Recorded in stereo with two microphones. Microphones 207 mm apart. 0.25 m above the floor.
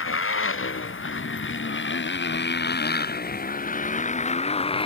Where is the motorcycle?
85° left; by 4.9 s 25° left (ahead or behind).